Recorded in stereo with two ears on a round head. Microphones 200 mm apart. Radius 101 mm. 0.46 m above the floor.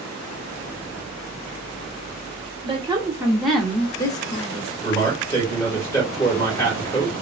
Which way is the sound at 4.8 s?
10° left (ahead or behind).